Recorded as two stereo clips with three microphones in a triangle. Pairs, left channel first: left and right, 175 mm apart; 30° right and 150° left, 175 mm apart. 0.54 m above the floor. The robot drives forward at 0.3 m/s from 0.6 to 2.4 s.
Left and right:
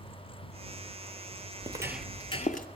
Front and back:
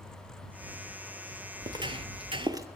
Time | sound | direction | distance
1.6 | footsteps | 145° right | 0.8 m